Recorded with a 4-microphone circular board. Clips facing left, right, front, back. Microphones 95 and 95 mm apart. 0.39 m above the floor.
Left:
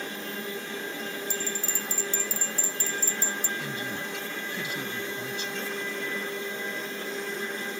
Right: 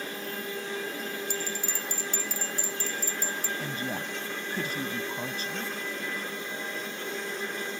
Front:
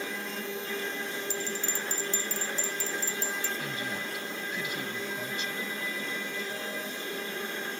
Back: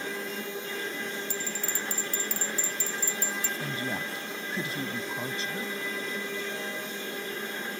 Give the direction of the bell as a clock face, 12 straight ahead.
2 o'clock.